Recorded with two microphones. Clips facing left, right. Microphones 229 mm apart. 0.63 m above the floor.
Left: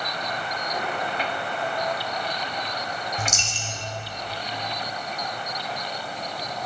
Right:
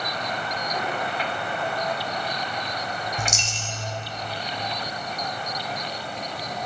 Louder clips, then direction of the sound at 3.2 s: Even; 10° right (ahead or behind).